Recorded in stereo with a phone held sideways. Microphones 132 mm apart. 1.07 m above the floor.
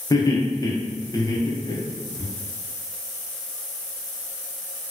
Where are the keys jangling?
I don't hear keys jangling.